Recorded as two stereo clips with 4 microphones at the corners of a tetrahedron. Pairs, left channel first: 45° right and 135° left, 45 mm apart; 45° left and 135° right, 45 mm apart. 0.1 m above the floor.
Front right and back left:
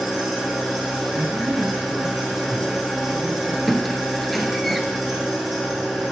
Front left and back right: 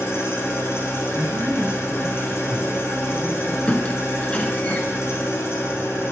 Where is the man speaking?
115° left, 3.5 m.